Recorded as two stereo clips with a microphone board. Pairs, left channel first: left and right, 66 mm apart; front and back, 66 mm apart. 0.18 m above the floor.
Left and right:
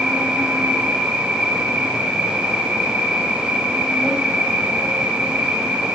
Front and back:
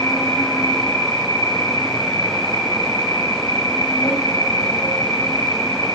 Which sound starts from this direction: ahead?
An insect, at 0.0 s.